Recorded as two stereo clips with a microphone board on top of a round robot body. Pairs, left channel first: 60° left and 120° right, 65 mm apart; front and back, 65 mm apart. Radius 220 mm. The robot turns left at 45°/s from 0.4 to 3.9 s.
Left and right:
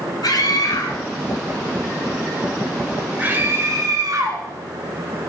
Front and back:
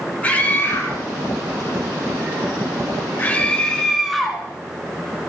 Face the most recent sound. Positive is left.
turn(degrees=-90)